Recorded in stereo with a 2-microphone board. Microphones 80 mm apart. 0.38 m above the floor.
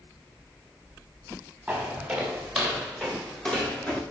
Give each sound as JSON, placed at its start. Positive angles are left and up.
{"t": 1.7, "sound": "footsteps", "side_deg": -5, "distance_m": 3.5}